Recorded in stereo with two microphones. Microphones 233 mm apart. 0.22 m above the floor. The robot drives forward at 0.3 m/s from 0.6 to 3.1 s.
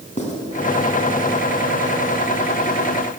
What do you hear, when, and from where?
0.2 s writing: 30° left (ahead or behind), 2.5 m